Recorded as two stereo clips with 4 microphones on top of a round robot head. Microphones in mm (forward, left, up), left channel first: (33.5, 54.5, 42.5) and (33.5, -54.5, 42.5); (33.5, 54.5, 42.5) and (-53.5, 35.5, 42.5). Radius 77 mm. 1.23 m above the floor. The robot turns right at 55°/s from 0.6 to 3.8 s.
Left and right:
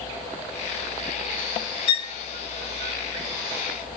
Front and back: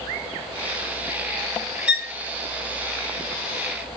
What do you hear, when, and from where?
1.9 s a violin: 110° left, 0.9 m; by 2.1 s 125° left, 0.9 m